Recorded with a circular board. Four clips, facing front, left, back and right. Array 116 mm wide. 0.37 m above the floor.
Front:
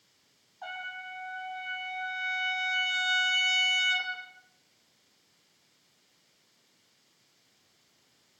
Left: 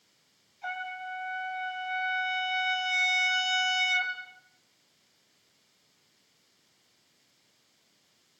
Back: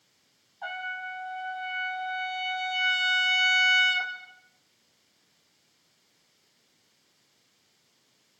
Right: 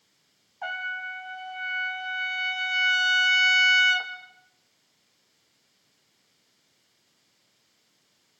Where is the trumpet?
95° right, 3 m.